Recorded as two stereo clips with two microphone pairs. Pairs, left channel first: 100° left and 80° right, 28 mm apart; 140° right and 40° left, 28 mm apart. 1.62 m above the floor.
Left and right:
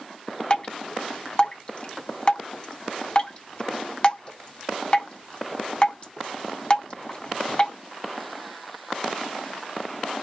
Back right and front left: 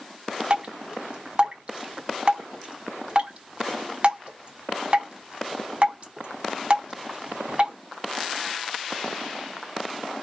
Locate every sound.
0.5 s dripping: 60° left, 1.3 m